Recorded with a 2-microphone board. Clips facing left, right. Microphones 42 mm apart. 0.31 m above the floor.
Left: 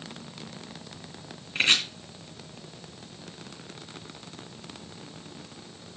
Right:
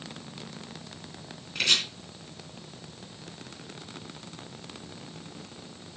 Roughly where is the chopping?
Left.